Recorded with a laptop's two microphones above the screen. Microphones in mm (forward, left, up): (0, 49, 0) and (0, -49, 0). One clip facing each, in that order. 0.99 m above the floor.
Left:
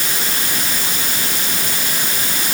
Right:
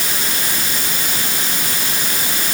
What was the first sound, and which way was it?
Only background noise.